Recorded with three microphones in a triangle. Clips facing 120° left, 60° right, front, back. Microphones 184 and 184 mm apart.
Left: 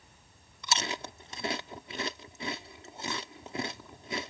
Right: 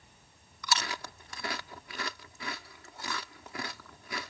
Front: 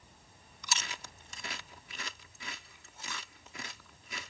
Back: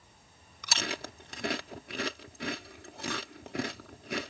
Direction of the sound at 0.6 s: 175° right.